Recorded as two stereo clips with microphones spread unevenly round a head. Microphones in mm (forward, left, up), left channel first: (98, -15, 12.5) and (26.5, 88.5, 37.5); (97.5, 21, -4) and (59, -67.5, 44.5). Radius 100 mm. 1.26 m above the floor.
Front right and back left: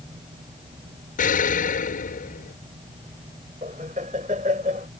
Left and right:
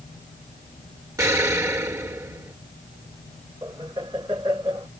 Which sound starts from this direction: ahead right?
An explosion, at 1.2 s.